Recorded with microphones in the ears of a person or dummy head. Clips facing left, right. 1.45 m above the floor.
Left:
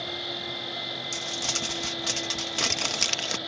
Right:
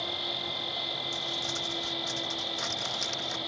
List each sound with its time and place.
0.0 s an insect: 5° right (ahead or behind)
1.1 s crumpling: 85° left